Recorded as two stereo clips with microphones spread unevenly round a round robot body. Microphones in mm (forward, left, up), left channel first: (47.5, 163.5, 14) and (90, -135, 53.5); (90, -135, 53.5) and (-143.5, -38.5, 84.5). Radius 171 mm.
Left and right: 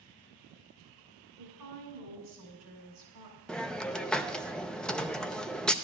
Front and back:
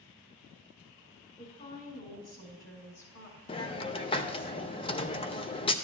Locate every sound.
1.4 s a woman speaking: 80° right, 5 m; by 3.4 s 65° right, 5.5 m
3.5 s a hiss: 20° left, 0.5 m